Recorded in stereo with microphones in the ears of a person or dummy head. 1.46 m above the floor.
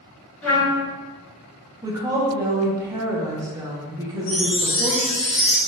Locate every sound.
0.4 s a trumpet: 10° left (ahead or behind), 1.7 m
1.8 s a woman speaking: 20° right (ahead or behind), 1.1 m
4.3 s a chime: 30° left (ahead or behind), 1.8 m